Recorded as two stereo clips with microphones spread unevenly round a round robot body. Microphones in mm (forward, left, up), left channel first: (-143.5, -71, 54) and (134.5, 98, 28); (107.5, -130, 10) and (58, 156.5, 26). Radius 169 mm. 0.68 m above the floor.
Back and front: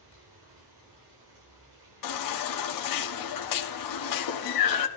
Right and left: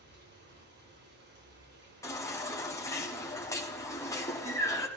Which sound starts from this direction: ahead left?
Running water, at 0.0 s.